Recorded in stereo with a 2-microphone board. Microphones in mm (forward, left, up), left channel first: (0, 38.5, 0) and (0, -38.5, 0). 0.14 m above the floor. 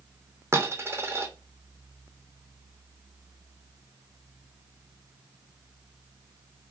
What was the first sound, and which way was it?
A dropped coin, 35° right (ahead or behind).